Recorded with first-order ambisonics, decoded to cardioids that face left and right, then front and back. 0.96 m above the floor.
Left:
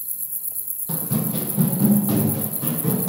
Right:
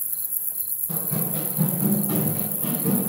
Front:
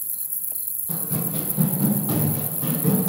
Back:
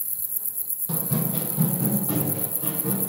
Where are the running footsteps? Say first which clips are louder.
Left 4 dB, back 1 dB; 115° left, 1.3 m; by 3.1 s 50° left, 1.9 m.